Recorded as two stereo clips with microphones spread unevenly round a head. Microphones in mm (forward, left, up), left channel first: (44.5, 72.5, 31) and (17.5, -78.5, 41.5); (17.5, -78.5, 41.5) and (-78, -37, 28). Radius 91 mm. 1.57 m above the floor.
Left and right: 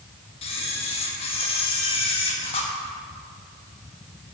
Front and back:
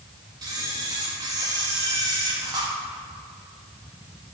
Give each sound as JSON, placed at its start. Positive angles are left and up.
{"t": 0.4, "sound": "a camera shutter", "azimuth_deg": 110, "distance_m": 1.0}